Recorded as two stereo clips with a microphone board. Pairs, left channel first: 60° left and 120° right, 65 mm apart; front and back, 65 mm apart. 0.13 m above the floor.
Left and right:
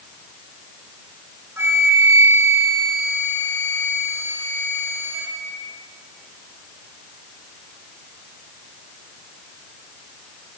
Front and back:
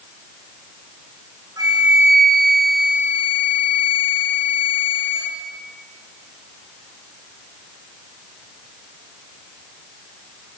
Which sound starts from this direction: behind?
A flute, at 1.6 s.